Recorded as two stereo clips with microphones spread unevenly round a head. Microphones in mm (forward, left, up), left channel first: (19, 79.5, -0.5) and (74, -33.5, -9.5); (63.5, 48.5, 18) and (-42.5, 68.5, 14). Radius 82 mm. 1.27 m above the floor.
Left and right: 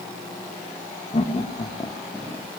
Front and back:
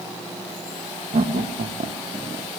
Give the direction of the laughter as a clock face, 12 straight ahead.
6 o'clock.